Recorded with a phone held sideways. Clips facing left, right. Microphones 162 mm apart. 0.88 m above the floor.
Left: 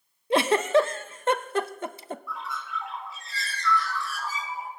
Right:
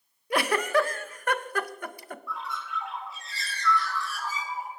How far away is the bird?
About 2.5 m.